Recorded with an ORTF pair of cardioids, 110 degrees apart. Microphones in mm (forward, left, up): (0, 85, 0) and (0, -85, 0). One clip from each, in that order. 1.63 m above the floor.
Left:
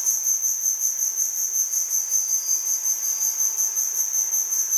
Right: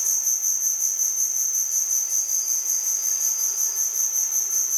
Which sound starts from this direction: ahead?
An insect, at 0.0 s.